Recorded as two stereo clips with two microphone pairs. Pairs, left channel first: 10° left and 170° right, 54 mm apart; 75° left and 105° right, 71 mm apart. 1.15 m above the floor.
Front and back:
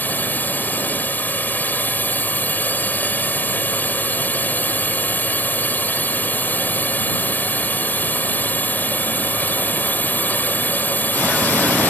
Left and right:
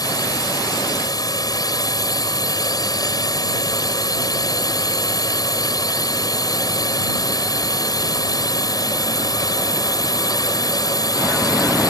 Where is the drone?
60° left.